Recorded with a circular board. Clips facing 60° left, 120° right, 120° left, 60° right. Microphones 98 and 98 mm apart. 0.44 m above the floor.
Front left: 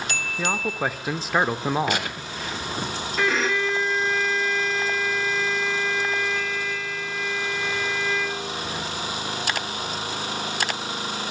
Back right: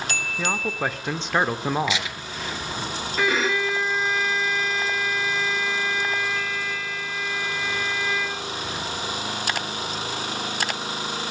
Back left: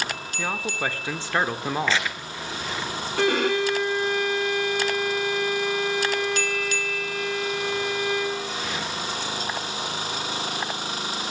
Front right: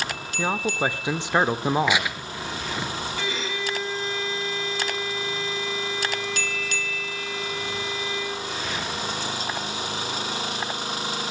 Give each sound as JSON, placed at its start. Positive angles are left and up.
{"t": 0.4, "sound": "a man speaking", "azimuth_deg": -20, "distance_m": 1.0}
{"t": 1.9, "sound": "tearing paper", "azimuth_deg": 20, "distance_m": 1.9}
{"t": 3.2, "sound": "a violin", "azimuth_deg": 150, "distance_m": 1.6}